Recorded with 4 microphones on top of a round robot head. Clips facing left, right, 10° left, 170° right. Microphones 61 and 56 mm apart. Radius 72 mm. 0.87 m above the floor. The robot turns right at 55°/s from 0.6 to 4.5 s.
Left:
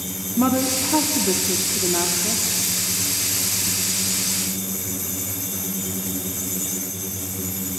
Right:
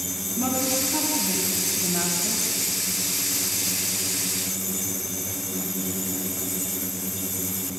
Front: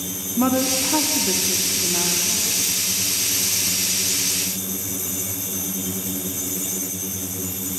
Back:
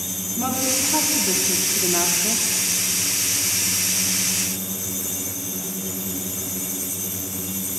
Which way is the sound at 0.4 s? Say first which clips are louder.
Left 6 dB, front 5 dB; 55° left.